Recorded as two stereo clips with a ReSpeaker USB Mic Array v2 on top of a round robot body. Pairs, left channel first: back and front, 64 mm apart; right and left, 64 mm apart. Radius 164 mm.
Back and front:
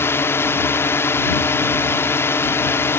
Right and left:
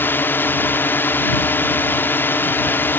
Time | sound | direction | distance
0.0 | a drone | 140° right | ?